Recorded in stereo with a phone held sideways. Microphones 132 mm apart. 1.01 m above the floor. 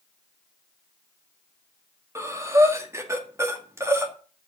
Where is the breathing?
20° right (ahead or behind), 1.9 m.